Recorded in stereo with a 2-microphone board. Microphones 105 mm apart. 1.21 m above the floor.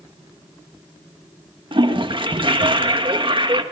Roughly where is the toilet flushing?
Right.